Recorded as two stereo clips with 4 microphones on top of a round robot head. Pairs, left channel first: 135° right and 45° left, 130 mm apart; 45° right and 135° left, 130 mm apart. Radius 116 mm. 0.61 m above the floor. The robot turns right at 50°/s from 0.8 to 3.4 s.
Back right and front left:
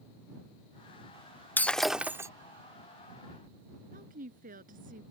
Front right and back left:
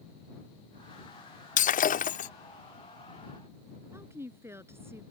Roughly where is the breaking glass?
Ahead right.